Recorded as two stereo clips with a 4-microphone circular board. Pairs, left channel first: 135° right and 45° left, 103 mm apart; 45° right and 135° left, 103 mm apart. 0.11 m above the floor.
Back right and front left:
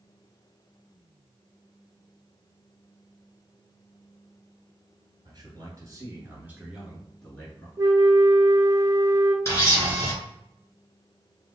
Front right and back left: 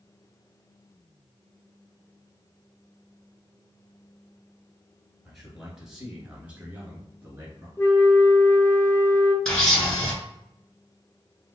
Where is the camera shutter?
125° right, 1.6 m.